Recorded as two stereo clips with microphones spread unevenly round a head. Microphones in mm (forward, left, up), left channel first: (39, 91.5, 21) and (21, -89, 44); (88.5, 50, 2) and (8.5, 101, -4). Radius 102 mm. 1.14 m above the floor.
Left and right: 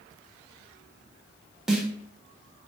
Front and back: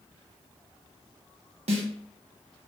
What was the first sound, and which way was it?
A snare drum, 175° left.